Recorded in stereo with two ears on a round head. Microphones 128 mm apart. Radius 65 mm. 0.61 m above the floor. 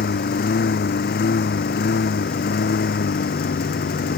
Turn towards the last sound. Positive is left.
turn(degrees=80)